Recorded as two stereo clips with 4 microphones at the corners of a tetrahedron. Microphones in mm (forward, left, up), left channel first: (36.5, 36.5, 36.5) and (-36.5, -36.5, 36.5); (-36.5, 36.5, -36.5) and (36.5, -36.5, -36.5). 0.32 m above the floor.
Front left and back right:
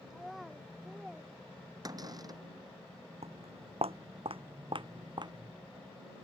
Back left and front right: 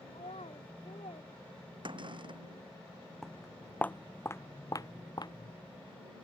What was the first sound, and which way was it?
A child speaking, 135° left.